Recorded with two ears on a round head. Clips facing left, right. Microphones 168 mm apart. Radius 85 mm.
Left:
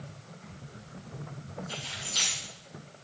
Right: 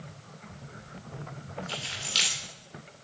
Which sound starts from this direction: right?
Keys jangling, at 1.7 s.